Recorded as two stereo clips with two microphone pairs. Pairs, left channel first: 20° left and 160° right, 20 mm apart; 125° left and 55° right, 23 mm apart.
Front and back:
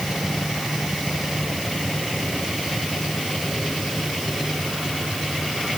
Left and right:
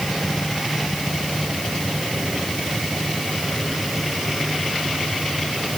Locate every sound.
Only background noise.